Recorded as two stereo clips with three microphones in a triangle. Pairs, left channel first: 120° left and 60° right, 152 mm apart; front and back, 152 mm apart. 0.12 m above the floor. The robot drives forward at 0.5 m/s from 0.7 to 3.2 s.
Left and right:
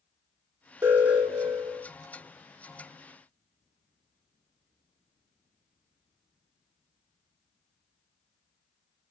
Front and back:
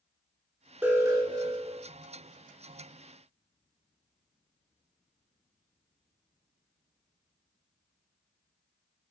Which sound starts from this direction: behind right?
An alarm, at 0.8 s.